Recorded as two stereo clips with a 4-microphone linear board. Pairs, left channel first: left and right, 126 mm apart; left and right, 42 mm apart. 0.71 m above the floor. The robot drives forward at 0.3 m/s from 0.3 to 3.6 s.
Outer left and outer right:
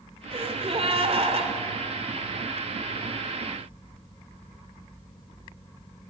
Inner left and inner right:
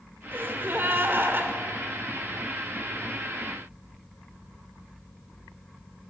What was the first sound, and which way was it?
A gasp, 55° right (ahead or behind).